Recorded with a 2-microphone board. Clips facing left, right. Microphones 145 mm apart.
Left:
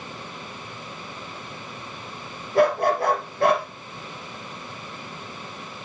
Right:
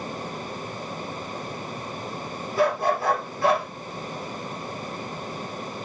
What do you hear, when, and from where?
2.5 s a dog barking: 70° left (ahead or behind), 3.5 m